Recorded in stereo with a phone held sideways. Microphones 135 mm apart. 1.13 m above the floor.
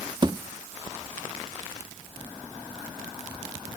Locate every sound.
0.2 s a thud: 30° right (ahead or behind), 1.0 m